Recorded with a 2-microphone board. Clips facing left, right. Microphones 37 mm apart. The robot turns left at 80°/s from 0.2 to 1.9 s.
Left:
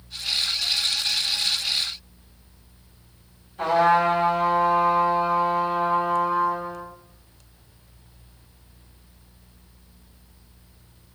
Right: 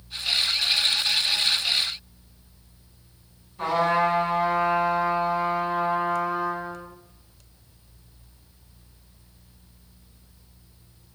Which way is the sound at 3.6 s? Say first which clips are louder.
Left 3 dB; 75° left (ahead or behind).